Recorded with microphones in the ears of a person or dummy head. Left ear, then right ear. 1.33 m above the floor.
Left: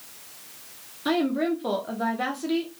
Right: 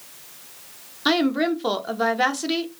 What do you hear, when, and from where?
1.1 s a woman speaking: 30° right (ahead or behind), 0.5 m